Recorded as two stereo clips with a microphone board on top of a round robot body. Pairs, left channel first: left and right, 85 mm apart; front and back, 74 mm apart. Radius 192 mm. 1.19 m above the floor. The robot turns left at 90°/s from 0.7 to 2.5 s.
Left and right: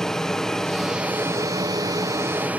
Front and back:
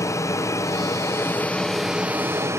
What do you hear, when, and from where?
0.0 s an aircraft: 10° left; by 2.6 s 155° right